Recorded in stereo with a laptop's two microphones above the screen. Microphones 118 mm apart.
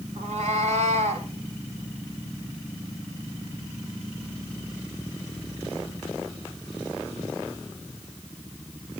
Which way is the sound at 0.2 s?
85° right.